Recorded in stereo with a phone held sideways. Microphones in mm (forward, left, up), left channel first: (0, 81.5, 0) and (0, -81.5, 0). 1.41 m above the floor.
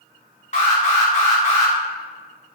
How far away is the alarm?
About 0.9 m.